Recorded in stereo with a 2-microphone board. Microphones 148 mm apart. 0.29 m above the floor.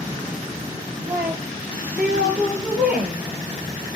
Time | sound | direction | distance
1.1 | a woman speaking | 10° right (ahead or behind) | 7.5 m